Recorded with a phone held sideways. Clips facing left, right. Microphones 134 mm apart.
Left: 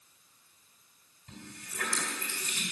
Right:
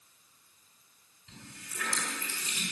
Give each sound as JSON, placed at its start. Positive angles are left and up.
{"t": 1.3, "sound": "a running tap", "side_deg": 55, "distance_m": 3.5}